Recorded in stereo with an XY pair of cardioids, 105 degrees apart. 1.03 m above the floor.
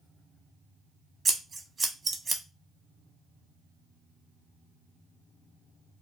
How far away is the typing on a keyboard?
No typing on a keyboard in this recording.